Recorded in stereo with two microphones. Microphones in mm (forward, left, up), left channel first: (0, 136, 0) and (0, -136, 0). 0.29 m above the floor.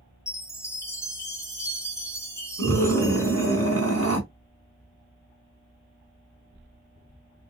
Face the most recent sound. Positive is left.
turn(degrees=-55)  # may be behind; listen again after turning